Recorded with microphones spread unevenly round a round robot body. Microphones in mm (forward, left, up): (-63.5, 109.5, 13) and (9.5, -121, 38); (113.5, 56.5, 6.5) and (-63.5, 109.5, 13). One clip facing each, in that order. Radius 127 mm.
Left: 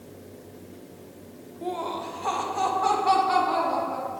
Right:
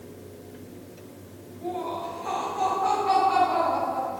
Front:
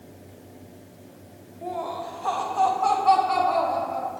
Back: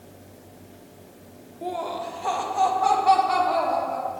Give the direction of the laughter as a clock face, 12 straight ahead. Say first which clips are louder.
Even, back 1 dB; 8 o'clock.